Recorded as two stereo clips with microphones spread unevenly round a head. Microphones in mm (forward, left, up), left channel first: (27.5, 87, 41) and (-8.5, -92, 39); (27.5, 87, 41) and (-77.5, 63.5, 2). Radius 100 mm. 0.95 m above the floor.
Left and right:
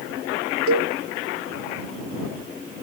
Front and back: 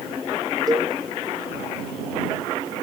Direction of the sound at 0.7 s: 95° right.